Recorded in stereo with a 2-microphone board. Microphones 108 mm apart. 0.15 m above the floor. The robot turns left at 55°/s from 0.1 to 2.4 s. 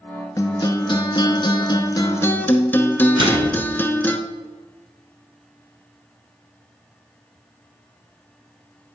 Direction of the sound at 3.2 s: 45° right (ahead or behind).